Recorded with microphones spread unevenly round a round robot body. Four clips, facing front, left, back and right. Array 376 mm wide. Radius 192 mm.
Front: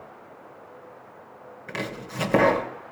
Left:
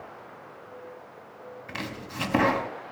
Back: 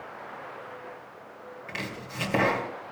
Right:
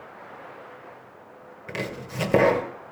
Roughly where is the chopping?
Right.